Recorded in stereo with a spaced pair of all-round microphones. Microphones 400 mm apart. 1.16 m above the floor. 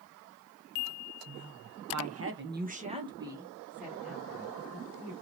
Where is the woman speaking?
50° right (ahead or behind), 0.8 m; by 5.1 s 5° left (ahead or behind), 2.5 m.